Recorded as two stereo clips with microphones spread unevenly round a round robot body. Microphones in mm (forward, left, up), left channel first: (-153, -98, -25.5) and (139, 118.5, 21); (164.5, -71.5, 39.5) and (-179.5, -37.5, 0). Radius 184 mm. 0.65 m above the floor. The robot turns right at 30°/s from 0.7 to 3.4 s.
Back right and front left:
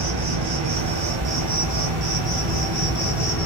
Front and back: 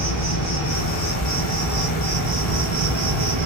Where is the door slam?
No door slam in this recording.